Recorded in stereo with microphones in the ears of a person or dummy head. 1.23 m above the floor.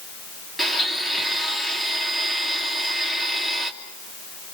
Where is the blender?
5° left (ahead or behind), 3 m.